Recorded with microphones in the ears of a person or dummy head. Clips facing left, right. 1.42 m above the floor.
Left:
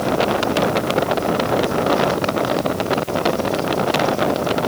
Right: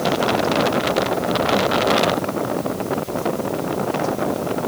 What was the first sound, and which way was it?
Only background noise.